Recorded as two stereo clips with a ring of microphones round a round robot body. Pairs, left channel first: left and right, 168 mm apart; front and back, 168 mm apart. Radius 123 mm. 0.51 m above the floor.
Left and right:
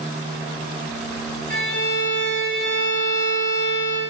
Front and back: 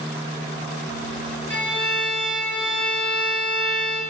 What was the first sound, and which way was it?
A violin, 130° left.